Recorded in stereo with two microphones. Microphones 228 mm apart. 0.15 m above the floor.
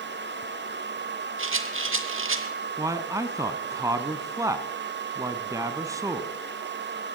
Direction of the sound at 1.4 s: 65° right (ahead or behind).